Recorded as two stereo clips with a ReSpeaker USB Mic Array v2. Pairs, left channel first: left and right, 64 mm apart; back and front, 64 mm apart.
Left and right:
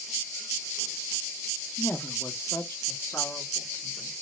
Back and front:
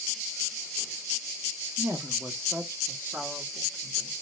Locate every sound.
1.8 s a woman speaking: 40° left, 1.3 m; by 4.1 s 60° left, 2.5 m